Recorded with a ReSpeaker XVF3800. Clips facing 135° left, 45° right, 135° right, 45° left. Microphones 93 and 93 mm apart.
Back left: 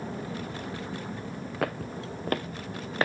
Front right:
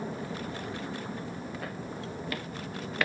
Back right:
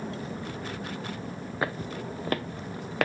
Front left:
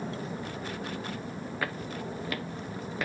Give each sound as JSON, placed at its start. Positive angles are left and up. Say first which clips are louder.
{"t": 1.6, "sound": "footsteps", "louder": "back left 6 dB, back right 4 dB", "azimuth_deg": 160, "distance_m": 0.9}